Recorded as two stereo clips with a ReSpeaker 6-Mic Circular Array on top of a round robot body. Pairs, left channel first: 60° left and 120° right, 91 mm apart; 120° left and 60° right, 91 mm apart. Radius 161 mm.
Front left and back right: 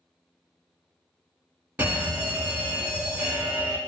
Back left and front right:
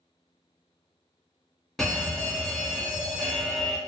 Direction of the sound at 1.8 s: 165° right.